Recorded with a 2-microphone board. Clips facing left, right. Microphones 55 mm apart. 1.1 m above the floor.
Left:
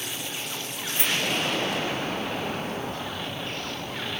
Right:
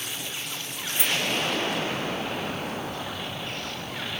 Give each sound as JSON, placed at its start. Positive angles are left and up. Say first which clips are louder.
{"t": 1.0, "sound": "keys jangling", "louder": "even", "side_deg": -10, "distance_m": 3.0}